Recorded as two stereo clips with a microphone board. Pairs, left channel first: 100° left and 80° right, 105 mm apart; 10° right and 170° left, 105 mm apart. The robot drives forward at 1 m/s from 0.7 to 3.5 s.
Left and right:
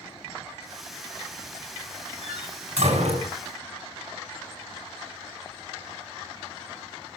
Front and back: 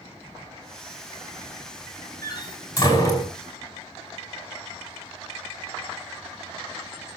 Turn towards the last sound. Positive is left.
turn(degrees=-80)